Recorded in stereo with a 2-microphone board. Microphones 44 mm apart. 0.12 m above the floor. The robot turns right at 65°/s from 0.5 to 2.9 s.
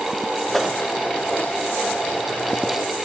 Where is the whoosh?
5° left (ahead or behind), 0.5 m; by 0.8 s 5° right (ahead or behind), 0.5 m.